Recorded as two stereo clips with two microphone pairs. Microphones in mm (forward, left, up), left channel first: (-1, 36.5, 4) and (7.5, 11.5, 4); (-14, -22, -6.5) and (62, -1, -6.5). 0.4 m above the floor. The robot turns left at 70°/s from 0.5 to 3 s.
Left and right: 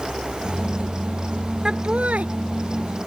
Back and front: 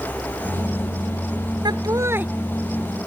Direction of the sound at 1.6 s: 10° right.